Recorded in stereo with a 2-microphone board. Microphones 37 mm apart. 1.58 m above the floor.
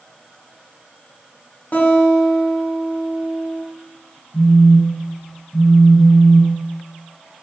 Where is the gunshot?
No gunshot in this recording.